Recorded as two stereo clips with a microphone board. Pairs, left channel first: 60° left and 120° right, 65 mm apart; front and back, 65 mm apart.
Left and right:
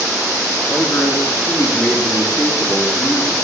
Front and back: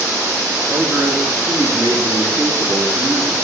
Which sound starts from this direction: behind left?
A man speaking, at 0.7 s.